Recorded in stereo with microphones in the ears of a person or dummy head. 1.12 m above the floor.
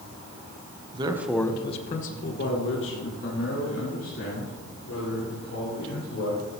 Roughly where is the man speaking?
Right.